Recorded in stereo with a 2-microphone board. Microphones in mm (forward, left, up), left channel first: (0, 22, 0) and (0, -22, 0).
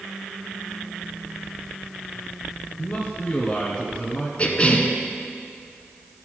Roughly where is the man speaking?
Left.